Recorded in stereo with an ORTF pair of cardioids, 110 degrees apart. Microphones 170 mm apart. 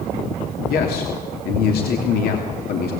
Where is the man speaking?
65° left, 3 m.